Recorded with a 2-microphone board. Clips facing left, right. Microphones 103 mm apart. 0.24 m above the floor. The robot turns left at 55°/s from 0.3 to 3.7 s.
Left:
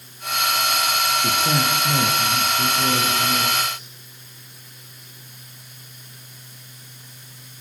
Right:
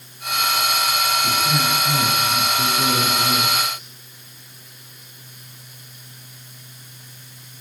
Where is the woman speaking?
70° left, 7 m; by 3.8 s 65° right, 7 m.